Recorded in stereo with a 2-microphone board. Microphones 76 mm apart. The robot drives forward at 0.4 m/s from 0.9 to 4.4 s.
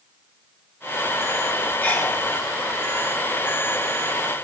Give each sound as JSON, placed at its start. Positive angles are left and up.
{"t": 1.8, "sound": "a sneeze", "side_deg": 20, "distance_m": 4.0}